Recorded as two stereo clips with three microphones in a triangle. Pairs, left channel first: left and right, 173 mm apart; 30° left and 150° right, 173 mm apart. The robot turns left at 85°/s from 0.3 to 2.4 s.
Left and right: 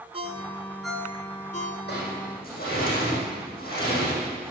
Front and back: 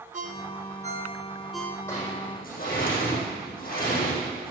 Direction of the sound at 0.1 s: 135° right.